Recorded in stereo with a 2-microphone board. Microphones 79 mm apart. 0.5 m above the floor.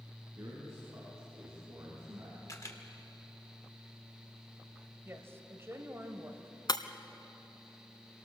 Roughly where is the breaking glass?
Left.